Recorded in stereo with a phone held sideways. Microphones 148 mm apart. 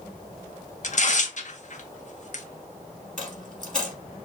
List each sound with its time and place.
0.8 s tearing paper: 55° left (ahead or behind), 0.8 m
3.2 s a dropped coin: 5° left (ahead or behind), 2.5 m